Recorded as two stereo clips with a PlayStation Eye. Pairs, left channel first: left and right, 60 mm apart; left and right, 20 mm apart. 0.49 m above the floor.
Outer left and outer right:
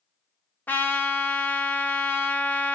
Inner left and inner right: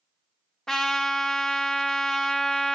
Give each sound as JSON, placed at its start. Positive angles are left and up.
{"t": 0.7, "sound": "a trumpet", "side_deg": 35, "distance_m": 0.7}